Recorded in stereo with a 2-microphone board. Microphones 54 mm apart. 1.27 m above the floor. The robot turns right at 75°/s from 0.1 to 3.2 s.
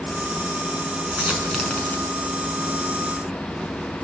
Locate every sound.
1.1 s a dropped coin: 35° right (ahead or behind), 5.5 m; by 2.1 s 45° left (ahead or behind), 5.5 m